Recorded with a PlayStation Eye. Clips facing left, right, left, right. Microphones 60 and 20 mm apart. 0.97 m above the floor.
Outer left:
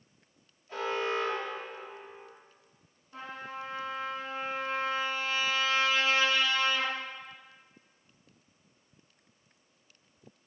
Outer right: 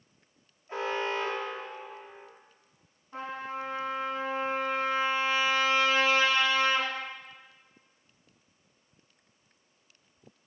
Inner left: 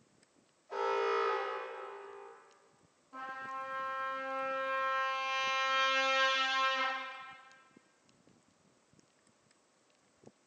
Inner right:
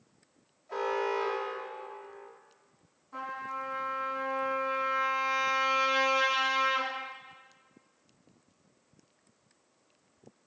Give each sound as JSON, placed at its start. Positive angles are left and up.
{"t": 0.7, "sound": "an alarm", "side_deg": -30, "distance_m": 3.0}
{"t": 3.1, "sound": "a trumpet", "side_deg": -45, "distance_m": 3.5}